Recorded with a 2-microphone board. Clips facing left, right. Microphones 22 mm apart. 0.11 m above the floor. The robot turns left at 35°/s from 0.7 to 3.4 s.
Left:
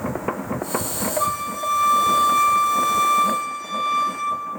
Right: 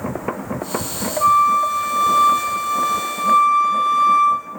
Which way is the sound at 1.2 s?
80° left.